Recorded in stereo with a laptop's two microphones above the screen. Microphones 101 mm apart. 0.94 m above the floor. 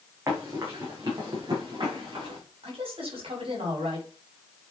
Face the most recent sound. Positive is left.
turn(degrees=-60)  # may be behind; listen again after turning